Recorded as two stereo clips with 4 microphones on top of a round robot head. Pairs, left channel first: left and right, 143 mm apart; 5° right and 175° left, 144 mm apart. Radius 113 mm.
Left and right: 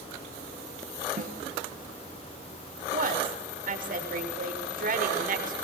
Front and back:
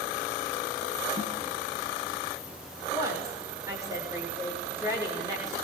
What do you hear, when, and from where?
1.2 s a snare drum: 120° right, 5.5 m
2.9 s a woman speaking: 110° right, 6.5 m